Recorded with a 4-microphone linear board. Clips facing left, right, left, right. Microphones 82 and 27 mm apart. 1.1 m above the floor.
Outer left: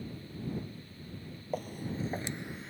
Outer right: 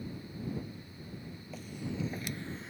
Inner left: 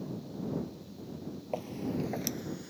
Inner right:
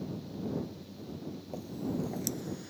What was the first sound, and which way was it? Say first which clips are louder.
Footsteps: outer left 3 dB, inner left 2 dB; 50° left (ahead or behind).